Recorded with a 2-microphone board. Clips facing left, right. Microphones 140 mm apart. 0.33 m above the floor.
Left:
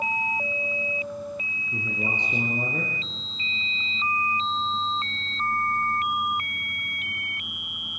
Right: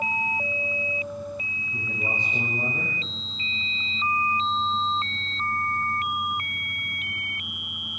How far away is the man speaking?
About 6.5 m.